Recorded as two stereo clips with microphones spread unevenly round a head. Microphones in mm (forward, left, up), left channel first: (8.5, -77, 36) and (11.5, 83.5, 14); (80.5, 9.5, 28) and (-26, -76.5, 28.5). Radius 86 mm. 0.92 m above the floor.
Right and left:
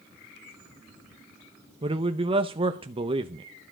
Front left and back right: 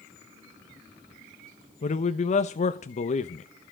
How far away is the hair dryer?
I don't hear a hair dryer.